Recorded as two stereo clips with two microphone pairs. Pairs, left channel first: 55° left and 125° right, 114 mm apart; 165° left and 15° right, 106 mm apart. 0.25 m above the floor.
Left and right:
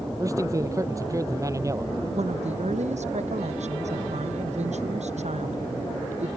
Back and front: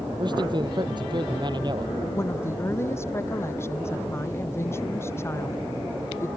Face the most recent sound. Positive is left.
turn(degrees=-130)